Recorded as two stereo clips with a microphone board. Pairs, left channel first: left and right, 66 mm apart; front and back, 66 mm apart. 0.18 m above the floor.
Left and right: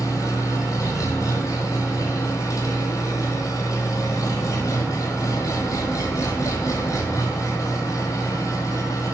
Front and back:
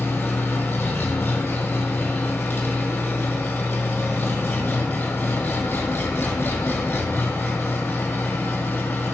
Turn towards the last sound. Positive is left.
turn(degrees=60)